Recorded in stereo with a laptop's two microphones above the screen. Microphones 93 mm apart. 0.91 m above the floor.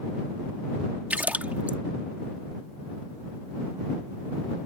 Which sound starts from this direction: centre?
A splash, at 1.1 s.